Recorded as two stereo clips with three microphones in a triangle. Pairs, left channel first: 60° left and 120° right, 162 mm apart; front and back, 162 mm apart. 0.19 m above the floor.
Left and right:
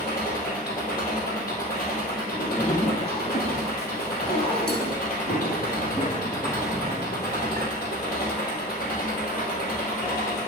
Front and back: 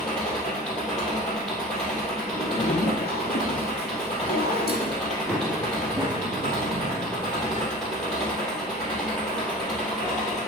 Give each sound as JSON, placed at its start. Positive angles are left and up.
{"t": 0.0, "sound": "an engine running", "azimuth_deg": 85, "distance_m": 2.0}
{"t": 2.3, "sound": "a zipper", "azimuth_deg": 10, "distance_m": 1.4}
{"t": 5.3, "sound": "running footsteps", "azimuth_deg": 90, "distance_m": 1.3}